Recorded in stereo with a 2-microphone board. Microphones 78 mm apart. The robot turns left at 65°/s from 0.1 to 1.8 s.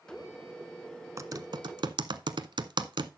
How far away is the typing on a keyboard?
About 0.7 m.